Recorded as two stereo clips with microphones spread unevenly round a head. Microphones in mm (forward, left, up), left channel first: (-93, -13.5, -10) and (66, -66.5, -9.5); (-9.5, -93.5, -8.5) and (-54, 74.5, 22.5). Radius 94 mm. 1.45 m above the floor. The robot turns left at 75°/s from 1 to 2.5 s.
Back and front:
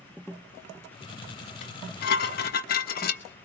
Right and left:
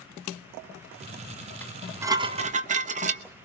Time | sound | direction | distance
1.6 | dishes clattering | 160° right | 1.1 m